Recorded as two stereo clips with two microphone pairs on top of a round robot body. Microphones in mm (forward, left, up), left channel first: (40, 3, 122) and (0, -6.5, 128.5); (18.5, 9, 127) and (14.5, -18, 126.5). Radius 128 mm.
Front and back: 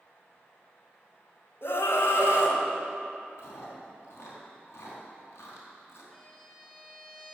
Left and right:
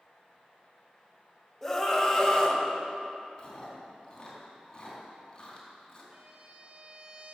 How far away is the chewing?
About 4 m.